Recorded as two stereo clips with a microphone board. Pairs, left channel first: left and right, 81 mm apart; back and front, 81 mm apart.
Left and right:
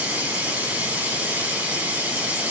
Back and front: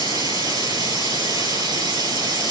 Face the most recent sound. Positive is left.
turn(degrees=-20)